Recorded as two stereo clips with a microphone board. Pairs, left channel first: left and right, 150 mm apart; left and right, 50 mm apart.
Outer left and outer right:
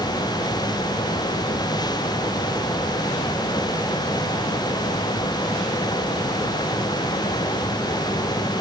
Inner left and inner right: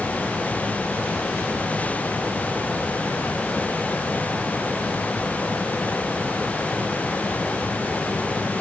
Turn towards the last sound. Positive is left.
No sound to turn to.